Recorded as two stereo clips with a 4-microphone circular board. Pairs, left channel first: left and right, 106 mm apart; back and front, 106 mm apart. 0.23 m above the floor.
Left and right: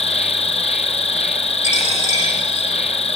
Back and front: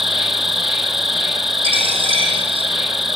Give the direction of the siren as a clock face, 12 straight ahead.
I don't hear a siren.